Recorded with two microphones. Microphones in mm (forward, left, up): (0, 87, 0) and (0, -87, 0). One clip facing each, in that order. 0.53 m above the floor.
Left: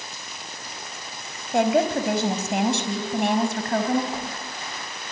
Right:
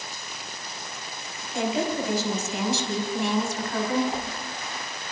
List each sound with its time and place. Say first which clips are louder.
1.5 s a woman speaking: left 6 dB; 70° left (ahead or behind), 4 m; by 4.0 s 60° left (ahead or behind), 5 m
4.1 s a whoosh: even; 5° right (ahead or behind), 9 m